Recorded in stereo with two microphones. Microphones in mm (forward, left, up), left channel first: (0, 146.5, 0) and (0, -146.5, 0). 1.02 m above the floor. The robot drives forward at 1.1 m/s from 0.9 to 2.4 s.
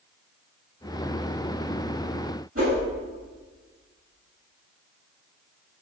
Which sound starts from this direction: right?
A whoosh, at 2.5 s.